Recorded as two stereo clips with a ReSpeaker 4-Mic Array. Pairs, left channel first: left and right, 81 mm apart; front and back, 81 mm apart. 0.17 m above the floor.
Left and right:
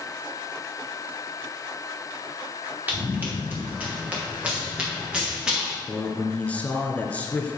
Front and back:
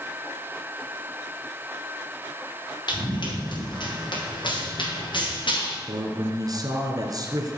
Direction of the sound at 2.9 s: 25° right.